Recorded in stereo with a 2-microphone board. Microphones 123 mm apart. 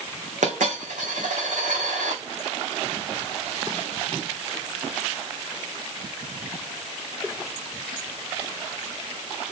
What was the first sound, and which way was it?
A dropped coin, 85° right.